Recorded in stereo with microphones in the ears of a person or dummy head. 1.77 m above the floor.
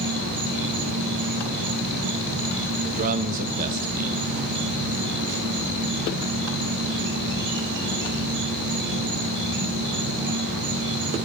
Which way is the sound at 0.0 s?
55° right (ahead or behind).